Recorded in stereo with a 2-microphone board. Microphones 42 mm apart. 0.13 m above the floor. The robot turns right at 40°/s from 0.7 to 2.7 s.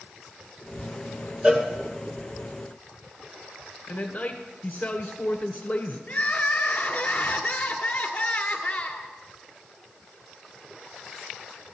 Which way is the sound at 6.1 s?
30° left (ahead or behind).